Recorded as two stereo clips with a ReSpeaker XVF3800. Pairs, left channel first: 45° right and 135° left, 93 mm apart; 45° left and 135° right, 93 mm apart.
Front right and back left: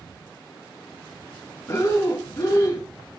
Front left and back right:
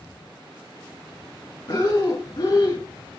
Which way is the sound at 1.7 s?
5° left.